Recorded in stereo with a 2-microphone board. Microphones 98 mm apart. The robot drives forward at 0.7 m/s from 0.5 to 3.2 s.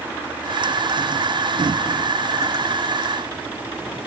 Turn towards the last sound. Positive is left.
No sound to turn to.